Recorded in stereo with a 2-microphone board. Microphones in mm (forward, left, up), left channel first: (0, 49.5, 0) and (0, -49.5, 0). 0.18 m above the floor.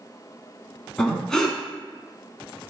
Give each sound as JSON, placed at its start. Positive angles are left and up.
{"t": 1.0, "sound": "breathing", "side_deg": 5, "distance_m": 0.6}